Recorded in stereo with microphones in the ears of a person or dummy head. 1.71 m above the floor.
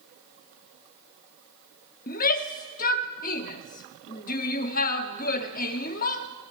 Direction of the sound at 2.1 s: 50° left (ahead or behind).